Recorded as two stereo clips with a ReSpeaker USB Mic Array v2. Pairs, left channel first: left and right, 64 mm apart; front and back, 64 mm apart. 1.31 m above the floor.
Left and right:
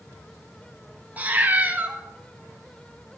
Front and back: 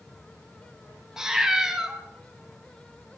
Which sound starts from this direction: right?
A cat meowing, at 1.2 s.